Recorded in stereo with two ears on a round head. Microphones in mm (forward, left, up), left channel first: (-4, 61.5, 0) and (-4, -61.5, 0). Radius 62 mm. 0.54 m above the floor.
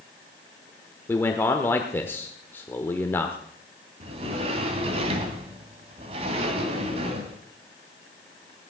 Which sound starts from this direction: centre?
A man speaking, at 1.1 s.